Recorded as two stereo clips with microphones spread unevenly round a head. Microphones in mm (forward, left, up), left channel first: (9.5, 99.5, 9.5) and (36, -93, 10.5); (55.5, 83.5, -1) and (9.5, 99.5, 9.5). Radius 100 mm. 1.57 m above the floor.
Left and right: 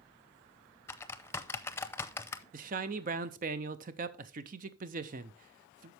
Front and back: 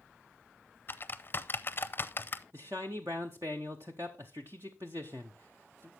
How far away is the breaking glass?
No breaking glass in this recording.